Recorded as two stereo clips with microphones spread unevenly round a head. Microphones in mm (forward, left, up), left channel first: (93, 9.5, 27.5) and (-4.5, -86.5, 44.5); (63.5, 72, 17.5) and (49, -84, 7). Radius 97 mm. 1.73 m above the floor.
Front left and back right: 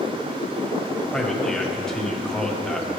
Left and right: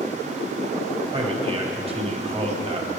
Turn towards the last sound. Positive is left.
turn(degrees=-40)